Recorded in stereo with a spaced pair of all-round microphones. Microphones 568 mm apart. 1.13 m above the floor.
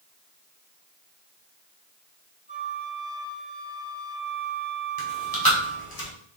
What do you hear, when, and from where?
2.5 s a flute: 20° left (ahead or behind), 2 m
5.0 s chewing: 40° left (ahead or behind), 1.5 m